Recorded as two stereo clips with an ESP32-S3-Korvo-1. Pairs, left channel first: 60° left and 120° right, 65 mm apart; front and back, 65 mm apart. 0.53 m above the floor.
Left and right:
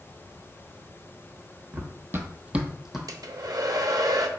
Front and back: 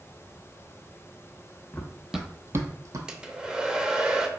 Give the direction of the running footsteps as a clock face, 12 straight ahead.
2 o'clock.